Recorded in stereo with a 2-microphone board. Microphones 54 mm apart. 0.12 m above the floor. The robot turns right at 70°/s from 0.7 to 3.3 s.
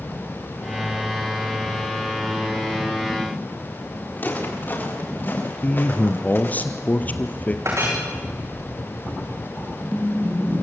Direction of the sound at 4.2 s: 35° left (ahead or behind).